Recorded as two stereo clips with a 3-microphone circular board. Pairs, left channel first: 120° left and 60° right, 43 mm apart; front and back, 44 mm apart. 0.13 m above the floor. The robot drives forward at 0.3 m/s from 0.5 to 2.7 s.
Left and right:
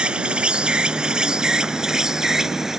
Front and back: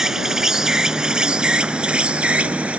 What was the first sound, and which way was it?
An insect, 110° right.